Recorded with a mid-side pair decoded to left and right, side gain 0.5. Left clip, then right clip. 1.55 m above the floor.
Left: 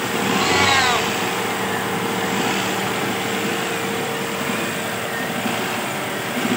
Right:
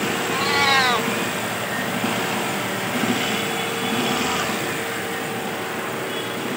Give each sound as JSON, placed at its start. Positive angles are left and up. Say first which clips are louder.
{"t": 0.3, "sound": "a cat meowing", "louder": "left 2 dB", "azimuth_deg": -10}